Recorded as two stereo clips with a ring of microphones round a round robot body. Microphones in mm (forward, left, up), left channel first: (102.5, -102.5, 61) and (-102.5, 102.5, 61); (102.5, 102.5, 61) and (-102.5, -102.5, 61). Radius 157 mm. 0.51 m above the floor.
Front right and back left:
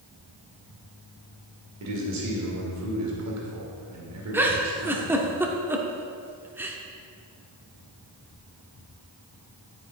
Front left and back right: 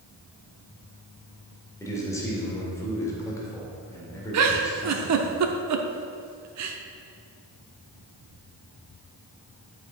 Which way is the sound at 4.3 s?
145° right.